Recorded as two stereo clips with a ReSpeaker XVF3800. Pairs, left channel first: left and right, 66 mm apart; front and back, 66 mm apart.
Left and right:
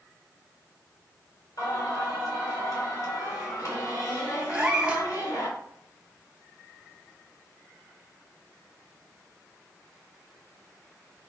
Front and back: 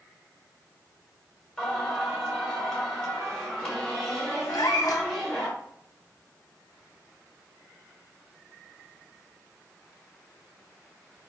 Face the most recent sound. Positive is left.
turn(degrees=-15)